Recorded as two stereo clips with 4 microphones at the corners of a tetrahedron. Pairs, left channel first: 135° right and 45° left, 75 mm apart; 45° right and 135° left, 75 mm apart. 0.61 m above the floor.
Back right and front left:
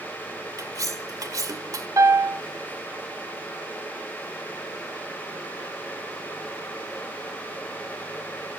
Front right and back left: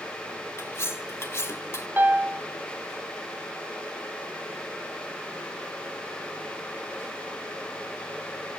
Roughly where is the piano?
Left.